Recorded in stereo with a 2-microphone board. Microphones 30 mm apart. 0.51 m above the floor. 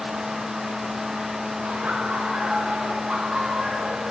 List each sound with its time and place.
1.6 s laughter: 40° right (ahead or behind), 6.5 m; by 4.0 s 30° right (ahead or behind), 6 m